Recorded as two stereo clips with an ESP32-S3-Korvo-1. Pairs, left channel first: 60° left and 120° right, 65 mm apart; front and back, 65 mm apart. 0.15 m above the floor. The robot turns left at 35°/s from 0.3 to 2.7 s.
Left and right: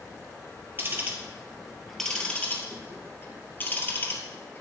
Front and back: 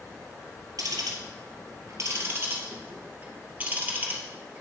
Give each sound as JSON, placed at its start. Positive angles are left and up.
{"t": 0.8, "sound": "ticking", "azimuth_deg": -175, "distance_m": 1.9}